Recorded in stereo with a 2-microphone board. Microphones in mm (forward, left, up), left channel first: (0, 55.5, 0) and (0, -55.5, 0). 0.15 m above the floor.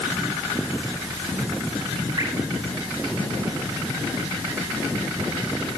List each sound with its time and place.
2.2 s dripping: 50° right (ahead or behind), 7.5 m